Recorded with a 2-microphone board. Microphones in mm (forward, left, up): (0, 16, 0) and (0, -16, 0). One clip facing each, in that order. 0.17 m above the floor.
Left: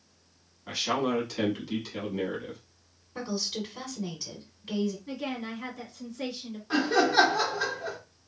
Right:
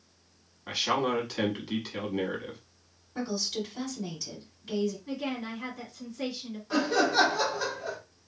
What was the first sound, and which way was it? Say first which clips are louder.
A man speaking: even; 20° right (ahead or behind).